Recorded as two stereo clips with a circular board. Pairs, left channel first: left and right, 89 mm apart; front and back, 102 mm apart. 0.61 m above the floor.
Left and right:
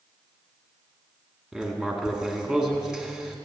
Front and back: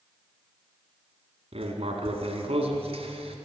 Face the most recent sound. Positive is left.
turn(degrees=-170)